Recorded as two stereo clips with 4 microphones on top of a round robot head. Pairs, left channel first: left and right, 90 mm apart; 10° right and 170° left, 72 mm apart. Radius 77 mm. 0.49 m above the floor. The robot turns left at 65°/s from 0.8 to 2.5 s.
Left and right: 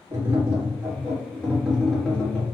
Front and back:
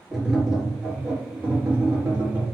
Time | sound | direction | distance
0.1 | tapping | 110° right | 1.5 m